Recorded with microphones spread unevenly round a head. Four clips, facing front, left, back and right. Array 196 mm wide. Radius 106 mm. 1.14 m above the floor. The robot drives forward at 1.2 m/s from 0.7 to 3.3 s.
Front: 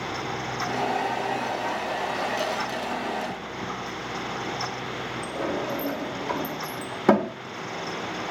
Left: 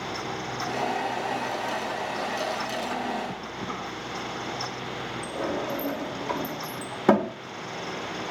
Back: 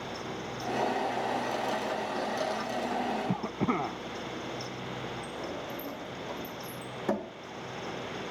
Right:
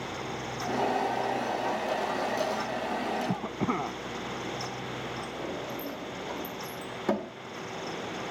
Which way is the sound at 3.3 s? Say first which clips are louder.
Right 4 dB, back 2 dB; 140° right.